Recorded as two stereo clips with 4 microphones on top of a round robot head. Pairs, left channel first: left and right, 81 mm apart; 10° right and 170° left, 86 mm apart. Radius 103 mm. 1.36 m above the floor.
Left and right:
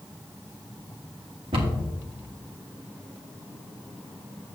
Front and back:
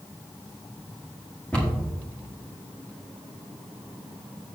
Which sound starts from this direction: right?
A cupboard door, at 1.5 s.